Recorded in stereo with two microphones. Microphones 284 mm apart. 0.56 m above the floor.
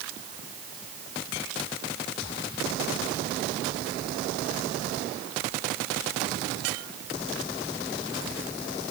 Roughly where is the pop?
I don't hear a pop.